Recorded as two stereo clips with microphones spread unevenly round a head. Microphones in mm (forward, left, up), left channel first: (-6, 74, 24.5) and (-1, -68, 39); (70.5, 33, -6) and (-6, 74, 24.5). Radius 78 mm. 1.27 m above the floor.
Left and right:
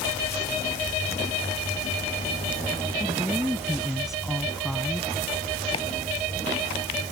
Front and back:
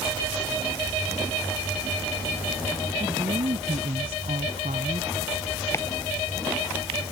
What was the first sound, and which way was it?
A woman speaking, 175° right.